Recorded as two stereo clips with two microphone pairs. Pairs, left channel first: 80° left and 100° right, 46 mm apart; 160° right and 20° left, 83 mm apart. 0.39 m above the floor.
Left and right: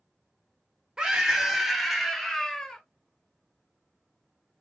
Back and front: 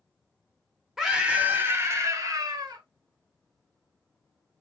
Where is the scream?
60° right, 0.9 m; by 2.8 s 5° left, 1.4 m.